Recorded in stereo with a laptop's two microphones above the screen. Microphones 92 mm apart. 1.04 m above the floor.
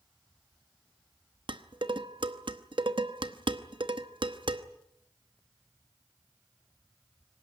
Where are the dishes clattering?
60° right (ahead or behind), 0.9 m.